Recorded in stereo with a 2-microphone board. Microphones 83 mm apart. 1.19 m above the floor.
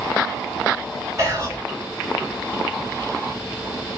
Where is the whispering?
40° right (ahead or behind), 3.5 m.